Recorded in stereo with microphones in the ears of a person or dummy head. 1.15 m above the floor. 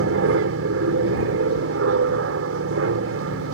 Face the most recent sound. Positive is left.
turn(degrees=-70)  # may be behind; listen again after turning